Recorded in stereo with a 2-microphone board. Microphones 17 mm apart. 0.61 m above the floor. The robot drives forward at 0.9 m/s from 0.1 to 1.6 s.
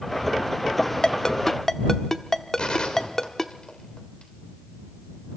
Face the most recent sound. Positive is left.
turn(degrees=65)  # may be behind; listen again after turning